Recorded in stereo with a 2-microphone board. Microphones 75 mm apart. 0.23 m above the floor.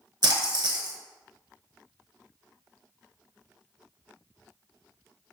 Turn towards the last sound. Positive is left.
turn(degrees=-70)  # may be behind; listen again after turning